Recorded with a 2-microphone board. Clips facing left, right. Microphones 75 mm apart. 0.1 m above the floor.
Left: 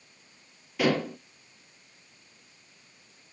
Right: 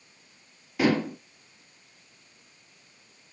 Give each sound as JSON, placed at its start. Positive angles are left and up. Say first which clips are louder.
{"t": 0.8, "sound": "dishes clattering", "louder": "right 2 dB", "side_deg": -20, "distance_m": 1.5}